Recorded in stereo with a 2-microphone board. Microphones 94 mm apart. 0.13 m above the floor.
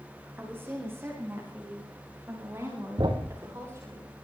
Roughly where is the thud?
Right.